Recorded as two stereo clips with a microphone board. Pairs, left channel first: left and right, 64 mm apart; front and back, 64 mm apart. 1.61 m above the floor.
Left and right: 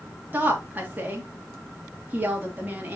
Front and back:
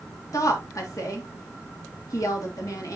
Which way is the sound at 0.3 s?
25° right.